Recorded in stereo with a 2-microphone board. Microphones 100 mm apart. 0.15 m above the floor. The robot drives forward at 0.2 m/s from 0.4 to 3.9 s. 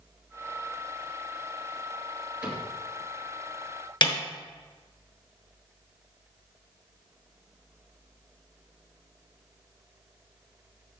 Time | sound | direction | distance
2.4 | a cupboard door | 10° right (ahead or behind) | 3 m
4.0 | a snare drum | 55° left (ahead or behind) | 1.0 m